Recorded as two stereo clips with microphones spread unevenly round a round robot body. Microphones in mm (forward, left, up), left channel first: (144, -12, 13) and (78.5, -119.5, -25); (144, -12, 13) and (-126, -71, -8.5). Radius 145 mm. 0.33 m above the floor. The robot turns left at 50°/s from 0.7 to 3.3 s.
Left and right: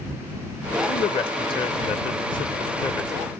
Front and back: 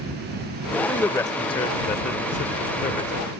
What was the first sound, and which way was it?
A man speaking, 100° left.